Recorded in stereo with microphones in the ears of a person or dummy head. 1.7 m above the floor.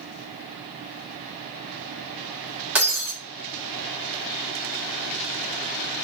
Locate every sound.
2.8 s breaking glass: 10° right (ahead or behind), 1.6 m